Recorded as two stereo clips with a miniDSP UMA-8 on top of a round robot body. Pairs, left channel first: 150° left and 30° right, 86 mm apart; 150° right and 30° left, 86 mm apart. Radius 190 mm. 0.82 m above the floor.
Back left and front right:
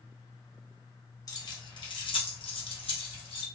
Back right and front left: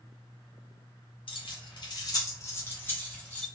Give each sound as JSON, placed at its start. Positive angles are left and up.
{"t": 1.3, "sound": "keys jangling", "azimuth_deg": -165, "distance_m": 0.8}